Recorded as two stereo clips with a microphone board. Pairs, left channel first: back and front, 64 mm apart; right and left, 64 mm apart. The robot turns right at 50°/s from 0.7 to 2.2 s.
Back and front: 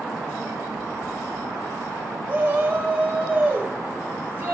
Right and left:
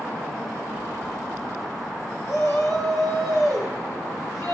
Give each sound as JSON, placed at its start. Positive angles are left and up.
{"t": 2.3, "sound": "a shout", "azimuth_deg": -50, "distance_m": 2.5}